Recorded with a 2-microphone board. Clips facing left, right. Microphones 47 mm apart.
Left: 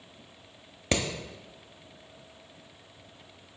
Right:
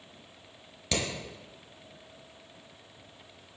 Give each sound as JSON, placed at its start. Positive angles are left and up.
{"t": 0.9, "sound": "hammering", "side_deg": 35, "distance_m": 0.7}